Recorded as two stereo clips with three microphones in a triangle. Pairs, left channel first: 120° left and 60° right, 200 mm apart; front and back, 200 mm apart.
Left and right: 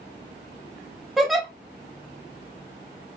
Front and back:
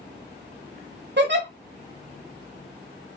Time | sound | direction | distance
1.2 | a giggle | 150° right | 0.9 m